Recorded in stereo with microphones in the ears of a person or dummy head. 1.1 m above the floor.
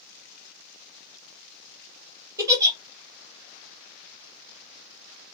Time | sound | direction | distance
2.4 | a giggle | 20° right (ahead or behind) | 1.6 m